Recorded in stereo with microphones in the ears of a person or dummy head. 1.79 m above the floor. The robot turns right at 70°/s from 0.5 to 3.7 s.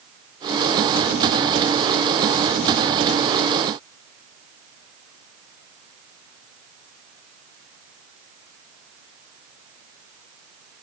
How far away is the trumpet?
No trumpet in this recording.